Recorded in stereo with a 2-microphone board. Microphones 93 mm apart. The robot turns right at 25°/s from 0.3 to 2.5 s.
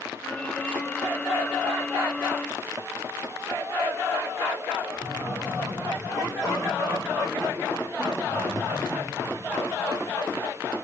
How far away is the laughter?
About 7 m.